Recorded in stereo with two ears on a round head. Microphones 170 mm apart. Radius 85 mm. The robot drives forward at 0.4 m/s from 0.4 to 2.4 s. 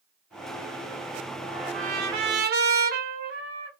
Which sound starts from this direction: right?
A trumpet, at 1.5 s.